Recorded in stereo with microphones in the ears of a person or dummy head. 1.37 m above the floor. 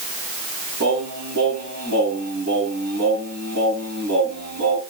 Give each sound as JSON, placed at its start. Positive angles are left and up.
{"t": 0.8, "sound": "singing", "side_deg": -45, "distance_m": 10.0}